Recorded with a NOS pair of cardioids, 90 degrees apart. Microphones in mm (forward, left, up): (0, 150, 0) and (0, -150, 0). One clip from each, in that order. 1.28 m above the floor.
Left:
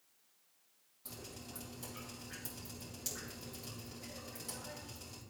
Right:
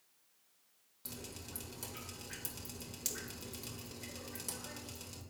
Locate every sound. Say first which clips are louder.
1.1 s dripping: right 1 dB; 45° right, 2 m